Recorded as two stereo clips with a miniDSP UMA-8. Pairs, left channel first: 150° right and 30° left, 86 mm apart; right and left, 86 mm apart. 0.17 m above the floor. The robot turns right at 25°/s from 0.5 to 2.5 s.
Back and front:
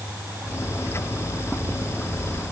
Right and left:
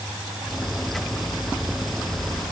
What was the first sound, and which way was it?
Only background noise.